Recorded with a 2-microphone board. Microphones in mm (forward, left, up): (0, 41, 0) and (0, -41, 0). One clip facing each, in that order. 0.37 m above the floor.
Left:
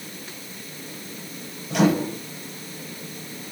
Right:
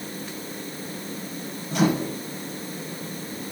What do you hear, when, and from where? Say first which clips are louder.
1.7 s a microwave: left 3 dB; 80° left, 5.5 m